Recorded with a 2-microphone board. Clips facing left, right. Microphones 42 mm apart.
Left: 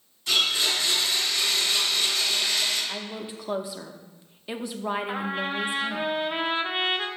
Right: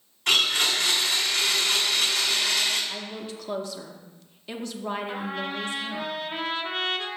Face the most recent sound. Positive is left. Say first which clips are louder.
# left 2 dB
turn(degrees=30)  # may be behind; listen again after turning